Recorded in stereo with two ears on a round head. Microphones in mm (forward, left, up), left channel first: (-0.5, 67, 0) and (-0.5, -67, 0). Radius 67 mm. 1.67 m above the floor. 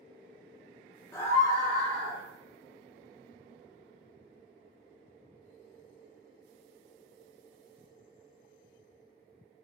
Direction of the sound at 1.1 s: 15° left (ahead or behind).